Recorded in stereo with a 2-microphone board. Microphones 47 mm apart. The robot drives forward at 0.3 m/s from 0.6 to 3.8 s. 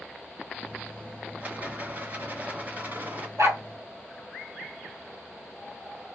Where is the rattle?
40° right (ahead or behind), 1.6 m.